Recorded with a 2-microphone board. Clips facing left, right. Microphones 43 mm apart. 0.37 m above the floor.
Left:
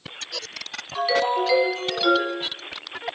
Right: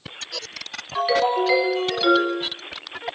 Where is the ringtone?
15° right (ahead or behind), 1.5 m.